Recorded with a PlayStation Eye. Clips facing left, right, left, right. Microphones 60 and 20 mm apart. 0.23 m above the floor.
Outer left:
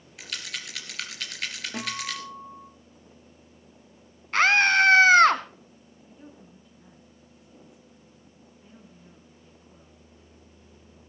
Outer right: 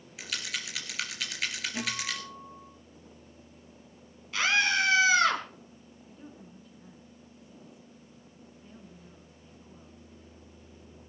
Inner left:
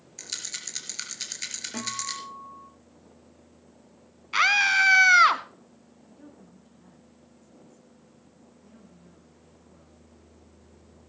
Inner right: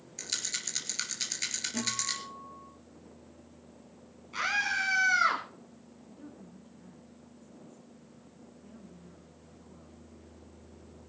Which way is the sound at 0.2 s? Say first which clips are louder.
Even, inner right 1 dB; 5° right (ahead or behind).